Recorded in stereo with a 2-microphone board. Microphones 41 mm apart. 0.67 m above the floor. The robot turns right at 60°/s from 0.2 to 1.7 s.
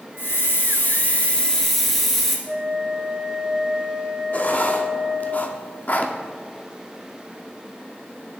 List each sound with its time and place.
0.2 s a hiss: 80° left, 1.6 m; by 2.4 s 170° left, 1.6 m
2.5 s a flute: 25° right (ahead or behind), 0.8 m
4.3 s writing: 40° left (ahead or behind), 0.6 m